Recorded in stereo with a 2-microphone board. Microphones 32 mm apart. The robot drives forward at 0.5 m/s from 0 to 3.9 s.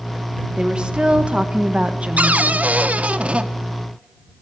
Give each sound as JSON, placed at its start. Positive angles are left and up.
{"t": 0.6, "sound": "a woman speaking", "side_deg": -30, "distance_m": 1.0}
{"t": 2.2, "sound": "a cupboard door", "side_deg": -45, "distance_m": 0.5}